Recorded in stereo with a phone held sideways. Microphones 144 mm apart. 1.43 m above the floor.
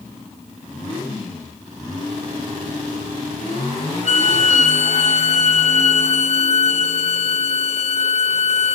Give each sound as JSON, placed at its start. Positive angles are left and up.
{"t": 4.0, "sound": "a violin", "side_deg": 50, "distance_m": 0.8}